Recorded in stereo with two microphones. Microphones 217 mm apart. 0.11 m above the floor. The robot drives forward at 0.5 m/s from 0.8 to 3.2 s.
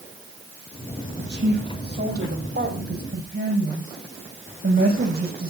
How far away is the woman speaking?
About 5 m.